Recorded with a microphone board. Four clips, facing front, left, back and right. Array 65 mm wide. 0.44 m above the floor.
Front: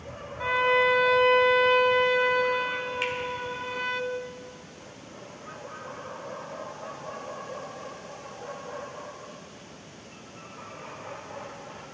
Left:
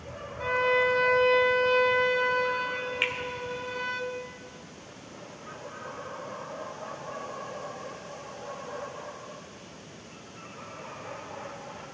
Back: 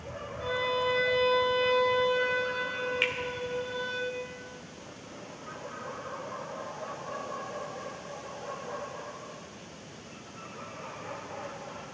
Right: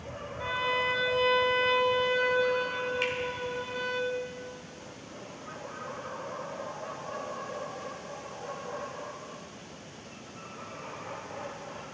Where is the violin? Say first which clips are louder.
Left 5 dB, front 7 dB; 10° left, 1.3 m.